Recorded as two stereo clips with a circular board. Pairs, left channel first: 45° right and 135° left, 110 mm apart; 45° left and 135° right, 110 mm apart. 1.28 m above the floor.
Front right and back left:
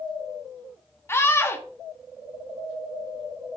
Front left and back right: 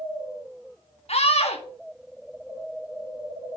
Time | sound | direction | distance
1.1 | a scream | 25° left | 1.8 m